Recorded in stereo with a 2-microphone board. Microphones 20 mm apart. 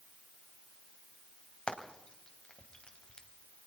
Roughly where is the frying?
Left.